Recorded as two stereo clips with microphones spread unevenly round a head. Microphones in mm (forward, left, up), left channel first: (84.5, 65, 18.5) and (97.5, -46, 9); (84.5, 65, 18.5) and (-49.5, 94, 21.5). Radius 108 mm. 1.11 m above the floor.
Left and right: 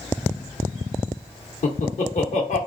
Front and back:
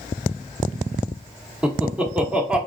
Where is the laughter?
85° left, 0.8 m.